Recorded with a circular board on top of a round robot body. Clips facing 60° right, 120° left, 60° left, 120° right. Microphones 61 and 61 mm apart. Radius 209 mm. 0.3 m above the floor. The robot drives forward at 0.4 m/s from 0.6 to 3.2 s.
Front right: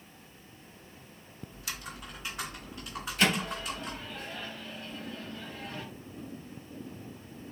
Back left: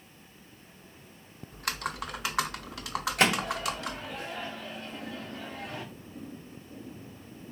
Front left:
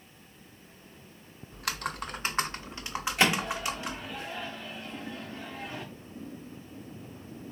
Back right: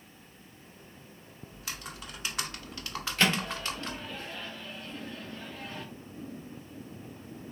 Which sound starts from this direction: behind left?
A microwave, at 3.2 s.